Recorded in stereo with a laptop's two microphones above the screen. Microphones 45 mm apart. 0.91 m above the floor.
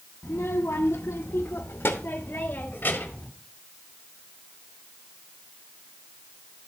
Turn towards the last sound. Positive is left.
turn(degrees=35)  # may be behind; listen again after turning